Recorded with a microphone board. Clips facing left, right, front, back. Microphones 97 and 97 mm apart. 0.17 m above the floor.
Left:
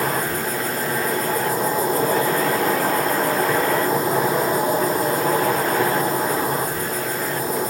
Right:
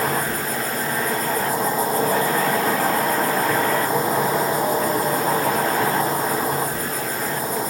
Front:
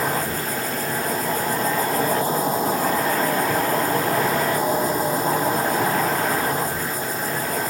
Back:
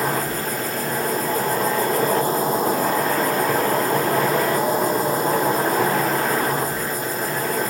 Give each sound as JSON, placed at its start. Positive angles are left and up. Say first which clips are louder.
{"t": 0.0, "sound": "an insect", "louder": "even, back 1 dB", "azimuth_deg": 145, "distance_m": 1.9}